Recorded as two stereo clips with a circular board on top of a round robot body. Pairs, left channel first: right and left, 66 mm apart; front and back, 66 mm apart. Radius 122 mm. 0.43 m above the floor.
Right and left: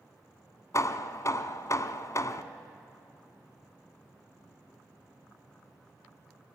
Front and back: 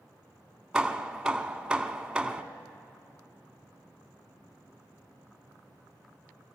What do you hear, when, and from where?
0.7 s hammering: 100° right, 1.1 m